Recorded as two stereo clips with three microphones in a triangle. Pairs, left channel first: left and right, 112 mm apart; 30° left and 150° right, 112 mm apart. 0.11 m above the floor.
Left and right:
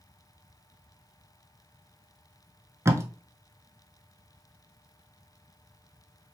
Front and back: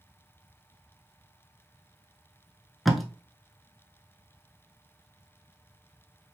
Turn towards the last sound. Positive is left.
turn(degrees=-60)